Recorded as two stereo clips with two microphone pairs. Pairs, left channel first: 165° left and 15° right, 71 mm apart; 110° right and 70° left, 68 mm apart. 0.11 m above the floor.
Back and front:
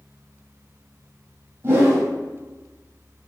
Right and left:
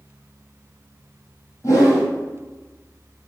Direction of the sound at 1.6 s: 65° right.